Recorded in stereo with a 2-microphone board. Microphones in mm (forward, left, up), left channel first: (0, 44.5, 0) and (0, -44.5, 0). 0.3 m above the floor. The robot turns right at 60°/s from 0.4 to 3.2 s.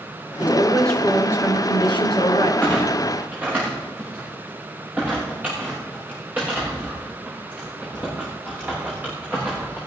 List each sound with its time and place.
0.4 s a woman speaking: 20° right, 3 m; by 2.5 s 105° left, 3 m
2.6 s a clunk: 20° left (ahead or behind), 9.5 m; by 9.8 s 20° right (ahead or behind), 9.5 m